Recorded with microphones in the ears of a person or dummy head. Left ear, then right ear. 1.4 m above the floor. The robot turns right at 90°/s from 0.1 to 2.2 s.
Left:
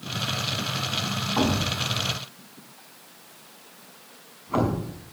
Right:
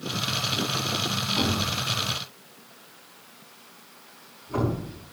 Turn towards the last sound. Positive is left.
turn(degrees=40)  # may be behind; listen again after turning